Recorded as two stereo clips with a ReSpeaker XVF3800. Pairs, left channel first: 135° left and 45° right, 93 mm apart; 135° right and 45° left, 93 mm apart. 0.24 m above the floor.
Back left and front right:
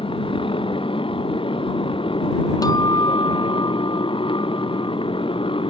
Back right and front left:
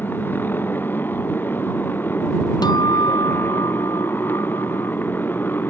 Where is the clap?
No clap in this recording.